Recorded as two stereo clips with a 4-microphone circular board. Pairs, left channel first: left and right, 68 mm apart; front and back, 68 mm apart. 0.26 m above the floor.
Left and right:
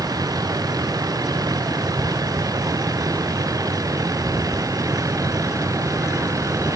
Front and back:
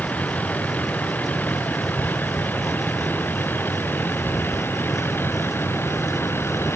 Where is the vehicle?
70° right; by 6.8 s 55° right.